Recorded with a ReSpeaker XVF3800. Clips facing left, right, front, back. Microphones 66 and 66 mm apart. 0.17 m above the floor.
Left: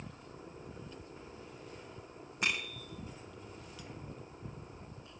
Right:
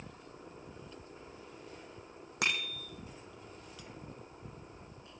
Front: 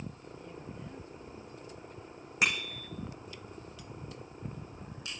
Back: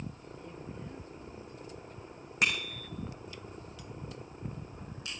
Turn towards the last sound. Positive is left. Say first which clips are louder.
# right 1 dB, even
turn(degrees=-85)